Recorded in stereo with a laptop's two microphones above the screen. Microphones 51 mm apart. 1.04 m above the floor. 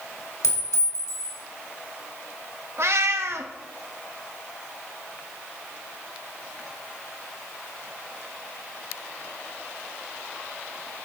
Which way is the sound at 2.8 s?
60° right (ahead or behind).